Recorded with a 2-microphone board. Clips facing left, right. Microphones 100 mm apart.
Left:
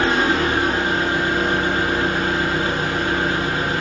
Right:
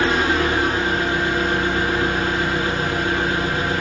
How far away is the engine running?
About 1.1 m.